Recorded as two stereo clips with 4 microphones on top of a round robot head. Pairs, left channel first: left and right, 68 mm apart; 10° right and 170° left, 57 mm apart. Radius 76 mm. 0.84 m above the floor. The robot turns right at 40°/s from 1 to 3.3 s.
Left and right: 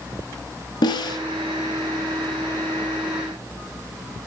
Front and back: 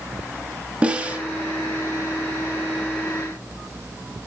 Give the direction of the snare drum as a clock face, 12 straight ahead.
8 o'clock.